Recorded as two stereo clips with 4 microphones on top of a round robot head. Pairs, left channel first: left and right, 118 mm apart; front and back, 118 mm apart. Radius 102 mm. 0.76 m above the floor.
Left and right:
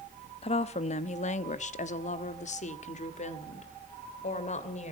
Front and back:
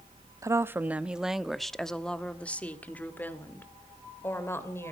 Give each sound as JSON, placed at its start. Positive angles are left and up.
{"t": 0.4, "sound": "a woman speaking", "azimuth_deg": 120, "distance_m": 0.8}